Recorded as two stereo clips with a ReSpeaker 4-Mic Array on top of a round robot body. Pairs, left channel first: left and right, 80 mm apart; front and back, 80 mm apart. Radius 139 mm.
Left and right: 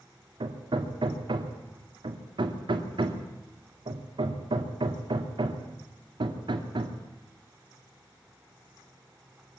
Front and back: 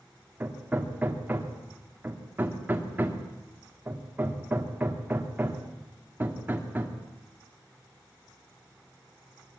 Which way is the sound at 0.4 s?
110° right.